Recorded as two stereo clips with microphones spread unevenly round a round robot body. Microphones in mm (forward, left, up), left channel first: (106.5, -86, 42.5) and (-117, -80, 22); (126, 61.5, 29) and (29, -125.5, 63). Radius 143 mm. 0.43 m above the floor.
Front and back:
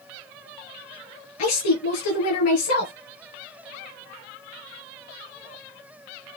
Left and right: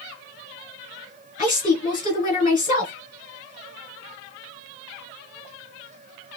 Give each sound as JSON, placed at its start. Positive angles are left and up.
{"t": 1.4, "sound": "a woman speaking", "azimuth_deg": 15, "distance_m": 4.0}